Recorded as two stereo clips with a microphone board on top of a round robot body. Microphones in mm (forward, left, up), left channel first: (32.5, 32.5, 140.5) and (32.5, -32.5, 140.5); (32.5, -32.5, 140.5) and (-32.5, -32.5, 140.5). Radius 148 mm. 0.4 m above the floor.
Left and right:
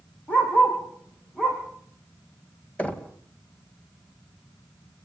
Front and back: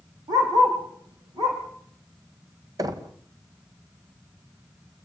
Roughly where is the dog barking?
Behind.